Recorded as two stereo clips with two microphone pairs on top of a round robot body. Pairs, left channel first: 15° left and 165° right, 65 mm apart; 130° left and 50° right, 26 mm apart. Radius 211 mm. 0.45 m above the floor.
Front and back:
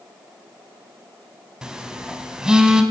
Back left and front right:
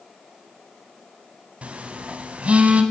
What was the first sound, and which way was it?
A phone buzzing, 85° right.